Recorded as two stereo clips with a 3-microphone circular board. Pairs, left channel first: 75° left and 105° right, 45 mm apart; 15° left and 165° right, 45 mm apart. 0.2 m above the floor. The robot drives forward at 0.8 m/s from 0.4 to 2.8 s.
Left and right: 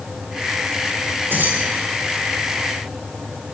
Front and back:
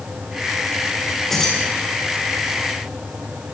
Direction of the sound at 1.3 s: 65° right.